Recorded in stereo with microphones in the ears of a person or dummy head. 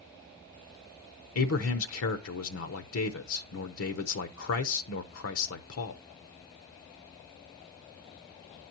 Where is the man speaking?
80° left, 0.8 m.